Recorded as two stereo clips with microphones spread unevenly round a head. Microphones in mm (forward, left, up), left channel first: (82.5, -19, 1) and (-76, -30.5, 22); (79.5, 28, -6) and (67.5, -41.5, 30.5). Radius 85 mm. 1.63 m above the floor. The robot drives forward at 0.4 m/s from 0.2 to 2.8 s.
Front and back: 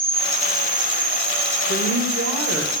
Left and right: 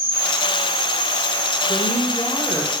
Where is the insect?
120° right, 0.8 m; by 2.8 s 155° right, 1.5 m.